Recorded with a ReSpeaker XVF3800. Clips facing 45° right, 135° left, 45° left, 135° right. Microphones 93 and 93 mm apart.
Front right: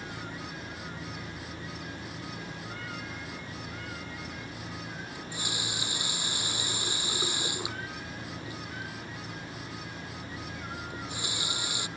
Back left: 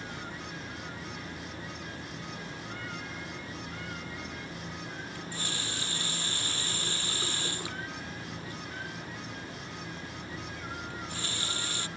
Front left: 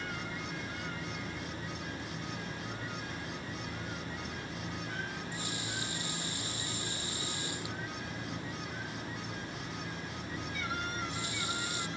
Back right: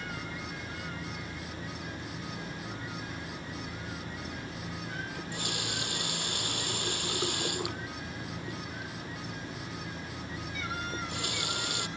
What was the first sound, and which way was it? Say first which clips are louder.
A running tap: front right 1 dB, back right 2 dB; 120° right.